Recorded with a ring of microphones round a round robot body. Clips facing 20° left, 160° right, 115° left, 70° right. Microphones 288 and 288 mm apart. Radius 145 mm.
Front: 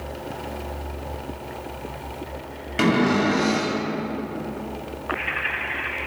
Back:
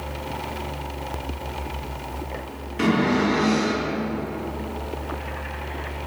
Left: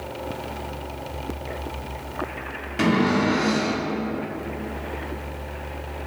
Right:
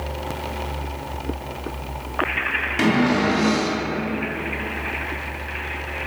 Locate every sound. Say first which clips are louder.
2.8 s a cupboard door: front 1 dB, right 2 dB; 10° left, 2.5 m